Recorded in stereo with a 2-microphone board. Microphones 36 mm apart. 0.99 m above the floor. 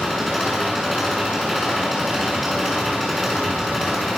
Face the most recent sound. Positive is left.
turn(degrees=-5)  # may be behind; listen again after turning